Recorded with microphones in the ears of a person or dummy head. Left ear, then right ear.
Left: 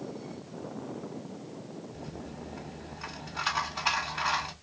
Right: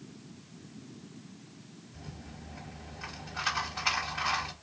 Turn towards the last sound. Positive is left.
turn(degrees=5)  # may be behind; listen again after turning